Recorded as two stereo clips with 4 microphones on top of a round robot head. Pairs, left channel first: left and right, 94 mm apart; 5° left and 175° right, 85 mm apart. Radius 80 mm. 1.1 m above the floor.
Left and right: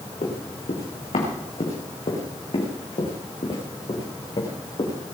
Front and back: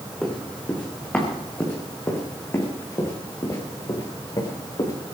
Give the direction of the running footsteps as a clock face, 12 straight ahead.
9 o'clock.